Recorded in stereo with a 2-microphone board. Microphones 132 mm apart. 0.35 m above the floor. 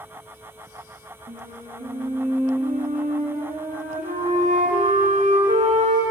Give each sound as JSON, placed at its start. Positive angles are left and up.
{"t": 1.3, "sound": "a flute", "side_deg": -75, "distance_m": 4.0}